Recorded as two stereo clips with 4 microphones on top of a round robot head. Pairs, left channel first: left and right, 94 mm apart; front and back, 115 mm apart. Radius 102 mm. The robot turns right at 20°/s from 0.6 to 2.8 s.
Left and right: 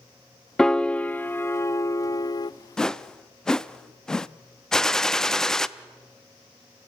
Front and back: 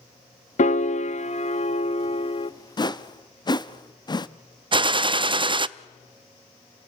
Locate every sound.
0.6 s a piano: 5° left, 0.5 m; by 2.5 s 45° left, 0.5 m
2.8 s a whoosh: 10° left, 0.7 m
4.7 s a gunshot: 170° left, 0.6 m